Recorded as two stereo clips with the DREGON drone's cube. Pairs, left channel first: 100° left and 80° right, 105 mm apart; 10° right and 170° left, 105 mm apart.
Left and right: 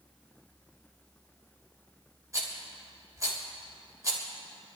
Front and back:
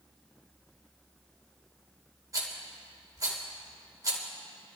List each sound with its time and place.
2.3 s a rattle: 135° right, 3.5 m